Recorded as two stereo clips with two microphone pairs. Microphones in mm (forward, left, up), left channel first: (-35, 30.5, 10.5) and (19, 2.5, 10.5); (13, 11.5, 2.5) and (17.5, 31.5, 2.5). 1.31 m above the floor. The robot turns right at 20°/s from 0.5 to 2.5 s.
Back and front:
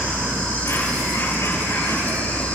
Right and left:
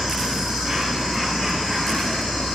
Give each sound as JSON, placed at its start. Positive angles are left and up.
{"t": 0.0, "sound": "an insect", "azimuth_deg": 170, "distance_m": 6.5}